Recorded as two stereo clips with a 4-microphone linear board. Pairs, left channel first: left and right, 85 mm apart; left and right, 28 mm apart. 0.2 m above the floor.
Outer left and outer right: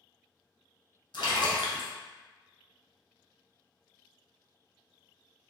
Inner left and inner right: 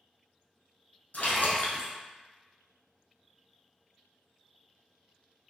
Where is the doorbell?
No doorbell in this recording.